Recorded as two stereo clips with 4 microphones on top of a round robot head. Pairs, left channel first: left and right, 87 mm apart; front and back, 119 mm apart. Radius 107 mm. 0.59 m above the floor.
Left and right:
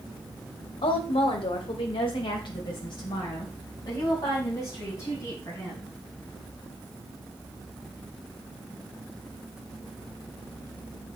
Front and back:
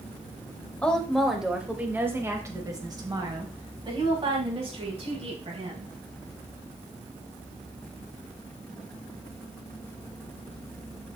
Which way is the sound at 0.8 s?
80° left.